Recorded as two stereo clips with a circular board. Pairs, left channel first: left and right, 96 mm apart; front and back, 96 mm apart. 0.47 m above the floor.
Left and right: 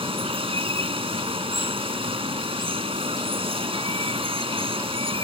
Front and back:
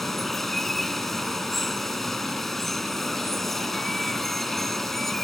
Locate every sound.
0.0 s running water: 85° right